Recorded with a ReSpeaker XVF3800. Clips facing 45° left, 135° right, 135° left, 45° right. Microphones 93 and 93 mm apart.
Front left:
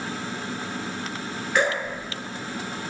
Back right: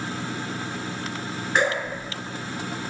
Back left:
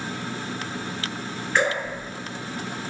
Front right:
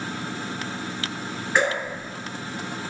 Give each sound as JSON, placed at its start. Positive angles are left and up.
{"t": 1.6, "sound": "dripping", "azimuth_deg": -105, "distance_m": 1.9}